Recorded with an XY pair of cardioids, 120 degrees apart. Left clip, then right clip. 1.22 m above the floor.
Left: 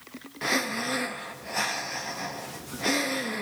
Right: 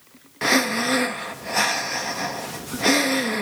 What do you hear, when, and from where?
0.4 s breathing: 40° right, 0.5 m